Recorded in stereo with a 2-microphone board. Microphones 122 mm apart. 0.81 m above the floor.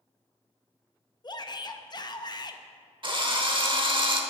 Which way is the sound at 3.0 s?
45° right (ahead or behind).